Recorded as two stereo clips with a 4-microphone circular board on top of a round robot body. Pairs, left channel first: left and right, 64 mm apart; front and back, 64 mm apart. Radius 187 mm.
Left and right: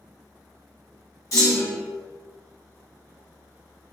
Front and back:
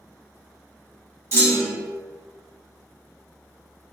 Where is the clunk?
130° left, 1.2 m.